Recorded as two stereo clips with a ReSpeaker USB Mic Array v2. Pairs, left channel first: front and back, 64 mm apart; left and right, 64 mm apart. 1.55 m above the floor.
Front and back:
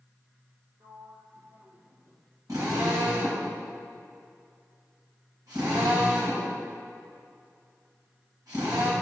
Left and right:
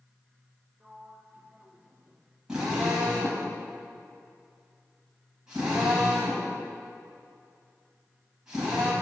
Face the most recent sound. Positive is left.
turn(degrees=-170)